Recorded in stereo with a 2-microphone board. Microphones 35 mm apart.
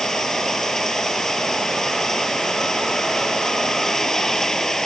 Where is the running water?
10° left (ahead or behind).